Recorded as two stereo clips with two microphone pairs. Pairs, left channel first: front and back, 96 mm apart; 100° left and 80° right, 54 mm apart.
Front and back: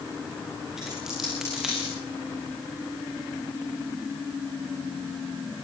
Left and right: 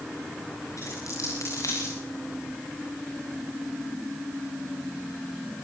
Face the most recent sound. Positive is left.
turn(degrees=95)